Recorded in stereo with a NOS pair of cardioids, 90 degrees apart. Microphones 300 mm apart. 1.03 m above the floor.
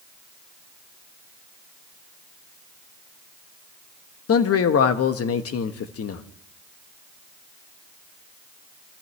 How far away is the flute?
I don't hear a flute.